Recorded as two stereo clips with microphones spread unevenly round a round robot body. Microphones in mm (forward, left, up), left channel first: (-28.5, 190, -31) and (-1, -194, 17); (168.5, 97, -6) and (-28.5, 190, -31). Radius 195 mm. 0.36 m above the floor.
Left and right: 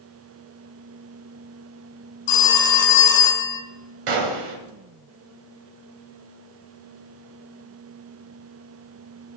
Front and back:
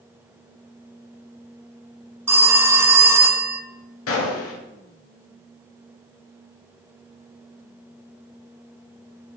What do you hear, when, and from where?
2.3 s a phone ringing: 75° left, 1.9 m
4.1 s a gunshot: 50° right, 1.6 m